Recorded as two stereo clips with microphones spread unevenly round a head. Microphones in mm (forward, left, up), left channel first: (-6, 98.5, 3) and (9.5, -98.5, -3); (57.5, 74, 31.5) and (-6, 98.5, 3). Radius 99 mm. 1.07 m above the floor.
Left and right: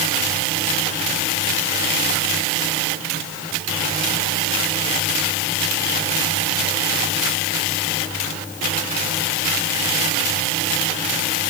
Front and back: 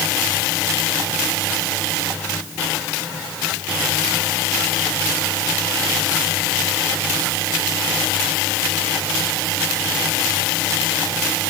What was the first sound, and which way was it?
Only background noise.